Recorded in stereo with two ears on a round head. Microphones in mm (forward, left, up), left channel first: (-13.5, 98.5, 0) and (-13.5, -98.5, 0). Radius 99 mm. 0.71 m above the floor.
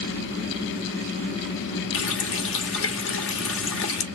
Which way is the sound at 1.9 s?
60° left (ahead or behind).